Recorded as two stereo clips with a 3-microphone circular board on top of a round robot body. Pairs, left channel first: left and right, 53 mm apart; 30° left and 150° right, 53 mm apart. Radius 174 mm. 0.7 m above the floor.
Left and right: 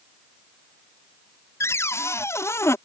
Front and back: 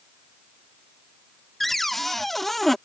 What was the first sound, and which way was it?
A cupboard door, 120° left.